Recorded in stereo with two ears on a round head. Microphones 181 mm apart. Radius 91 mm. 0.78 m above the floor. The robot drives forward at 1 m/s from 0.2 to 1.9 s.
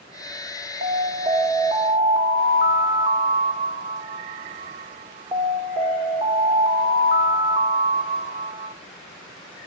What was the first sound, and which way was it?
An alarm, 40° right (ahead or behind).